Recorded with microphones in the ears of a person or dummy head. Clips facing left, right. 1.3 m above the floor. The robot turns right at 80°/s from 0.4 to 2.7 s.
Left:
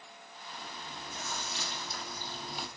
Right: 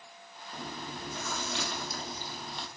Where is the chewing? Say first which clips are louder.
Right 6 dB; 155° right, 1.4 m; by 2.7 s 15° left, 1.4 m.